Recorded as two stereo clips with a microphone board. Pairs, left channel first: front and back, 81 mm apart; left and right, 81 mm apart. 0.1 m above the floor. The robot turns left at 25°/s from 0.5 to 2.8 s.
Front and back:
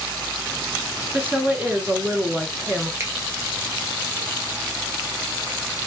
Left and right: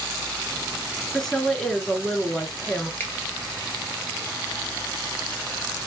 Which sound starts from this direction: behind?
A woman speaking, at 1.1 s.